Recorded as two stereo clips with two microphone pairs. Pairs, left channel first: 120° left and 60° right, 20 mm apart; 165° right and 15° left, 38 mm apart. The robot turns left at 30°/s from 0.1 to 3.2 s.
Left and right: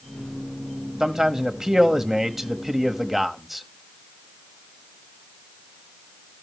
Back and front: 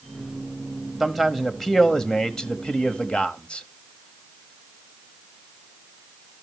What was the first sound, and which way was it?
A man speaking, 70° right.